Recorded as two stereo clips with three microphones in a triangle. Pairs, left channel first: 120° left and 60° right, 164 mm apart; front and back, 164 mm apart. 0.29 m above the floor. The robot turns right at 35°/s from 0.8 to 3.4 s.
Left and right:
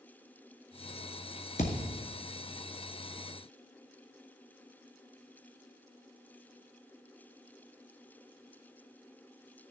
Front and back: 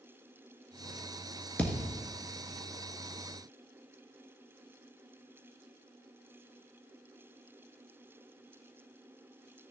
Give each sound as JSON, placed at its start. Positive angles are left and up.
{"t": 1.6, "sound": "a thud", "azimuth_deg": 80, "distance_m": 1.7}